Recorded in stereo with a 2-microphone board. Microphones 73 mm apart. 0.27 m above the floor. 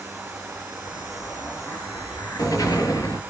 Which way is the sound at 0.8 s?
60° left (ahead or behind).